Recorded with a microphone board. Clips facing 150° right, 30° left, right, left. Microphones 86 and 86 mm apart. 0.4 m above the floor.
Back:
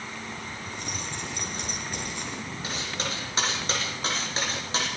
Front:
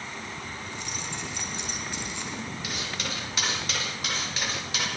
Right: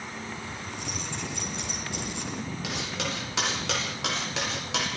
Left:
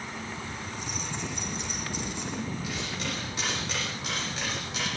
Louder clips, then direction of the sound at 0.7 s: Back 1 dB, even; 105° right.